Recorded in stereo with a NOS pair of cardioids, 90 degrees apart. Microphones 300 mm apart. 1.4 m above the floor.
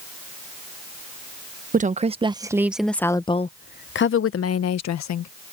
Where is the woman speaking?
25° right; by 5.3 s 65° left.